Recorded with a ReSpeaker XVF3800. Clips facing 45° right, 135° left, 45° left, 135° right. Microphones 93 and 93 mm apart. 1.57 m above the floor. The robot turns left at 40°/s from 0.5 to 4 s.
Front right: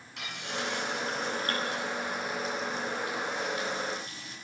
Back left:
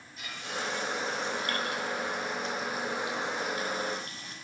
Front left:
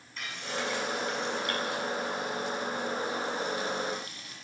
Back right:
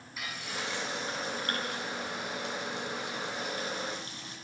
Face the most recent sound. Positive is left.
turn(degrees=165)